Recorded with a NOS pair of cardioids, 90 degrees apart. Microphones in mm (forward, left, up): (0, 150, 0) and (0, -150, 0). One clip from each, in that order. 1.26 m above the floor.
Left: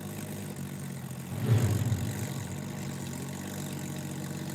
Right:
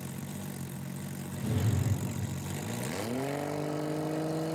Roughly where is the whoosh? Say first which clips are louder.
Left 3 dB; ahead left.